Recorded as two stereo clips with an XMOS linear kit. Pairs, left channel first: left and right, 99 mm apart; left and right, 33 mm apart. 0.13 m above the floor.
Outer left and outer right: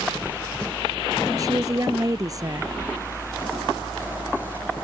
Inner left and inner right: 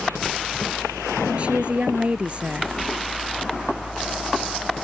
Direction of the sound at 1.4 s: 40° right (ahead or behind).